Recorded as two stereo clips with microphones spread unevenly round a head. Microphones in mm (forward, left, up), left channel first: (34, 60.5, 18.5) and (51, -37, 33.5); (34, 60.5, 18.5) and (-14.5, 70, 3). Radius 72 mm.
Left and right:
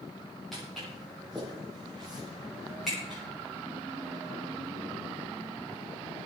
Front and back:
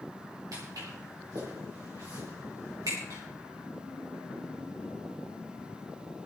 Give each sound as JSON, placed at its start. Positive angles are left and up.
{"t": 0.5, "sound": "footsteps", "azimuth_deg": -170, "distance_m": 8.0}